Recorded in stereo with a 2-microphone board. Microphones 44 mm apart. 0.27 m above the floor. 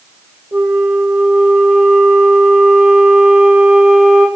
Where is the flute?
75° right (ahead or behind), 1.1 m.